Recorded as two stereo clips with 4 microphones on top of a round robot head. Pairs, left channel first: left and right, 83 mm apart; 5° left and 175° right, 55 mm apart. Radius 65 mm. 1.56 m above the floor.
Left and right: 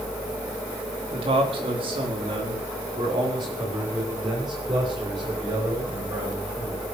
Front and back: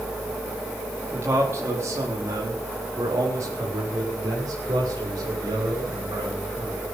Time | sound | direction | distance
1.1 | a man speaking | 115° right | 4 m